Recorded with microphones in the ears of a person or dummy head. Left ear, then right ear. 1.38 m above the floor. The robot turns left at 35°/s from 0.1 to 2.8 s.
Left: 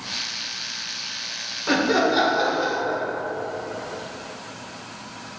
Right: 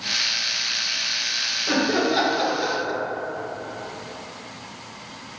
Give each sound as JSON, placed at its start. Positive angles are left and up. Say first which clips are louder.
{"t": 1.7, "sound": "laughter", "louder": "left 5 dB", "azimuth_deg": 15, "distance_m": 0.5}